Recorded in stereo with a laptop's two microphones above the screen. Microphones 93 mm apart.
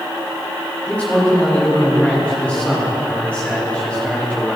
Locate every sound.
0.9 s a man speaking: 15° left (ahead or behind), 6 m